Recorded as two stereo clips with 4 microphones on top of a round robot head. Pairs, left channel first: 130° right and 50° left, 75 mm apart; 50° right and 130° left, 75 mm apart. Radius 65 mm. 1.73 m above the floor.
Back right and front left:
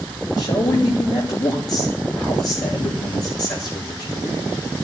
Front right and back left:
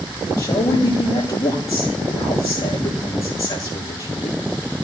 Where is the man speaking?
100° right, 6.5 m.